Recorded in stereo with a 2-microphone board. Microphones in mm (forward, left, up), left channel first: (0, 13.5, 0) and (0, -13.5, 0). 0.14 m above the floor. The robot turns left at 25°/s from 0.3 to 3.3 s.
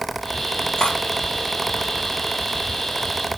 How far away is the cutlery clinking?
About 2.5 m.